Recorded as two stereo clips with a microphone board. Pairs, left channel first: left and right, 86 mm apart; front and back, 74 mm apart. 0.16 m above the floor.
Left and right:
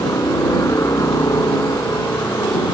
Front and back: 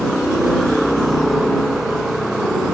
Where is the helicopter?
90° left; by 2.7 s 100° left.